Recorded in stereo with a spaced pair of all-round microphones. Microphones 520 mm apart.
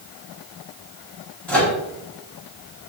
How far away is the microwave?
About 1.7 m.